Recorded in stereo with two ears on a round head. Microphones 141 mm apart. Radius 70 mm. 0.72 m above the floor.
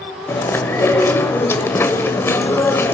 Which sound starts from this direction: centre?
Chewing, at 0.3 s.